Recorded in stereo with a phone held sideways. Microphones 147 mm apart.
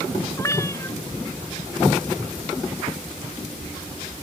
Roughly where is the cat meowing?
Left.